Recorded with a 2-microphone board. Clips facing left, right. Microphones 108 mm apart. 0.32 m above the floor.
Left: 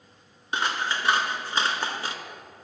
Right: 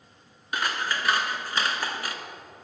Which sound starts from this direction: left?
Scissors, at 0.5 s.